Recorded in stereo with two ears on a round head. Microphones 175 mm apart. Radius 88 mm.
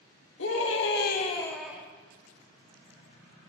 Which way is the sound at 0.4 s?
70° left (ahead or behind).